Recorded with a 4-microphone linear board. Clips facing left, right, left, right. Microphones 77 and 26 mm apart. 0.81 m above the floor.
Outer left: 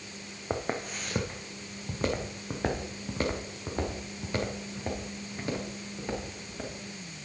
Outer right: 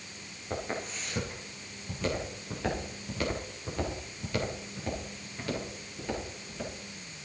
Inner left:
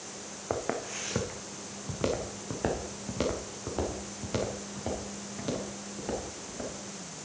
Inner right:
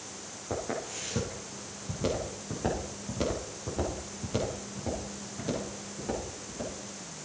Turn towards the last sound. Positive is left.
turn(degrees=20)  # may be behind; listen again after turning